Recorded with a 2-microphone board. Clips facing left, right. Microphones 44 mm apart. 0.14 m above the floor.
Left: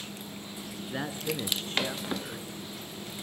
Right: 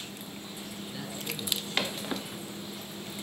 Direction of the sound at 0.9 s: 45° left (ahead or behind).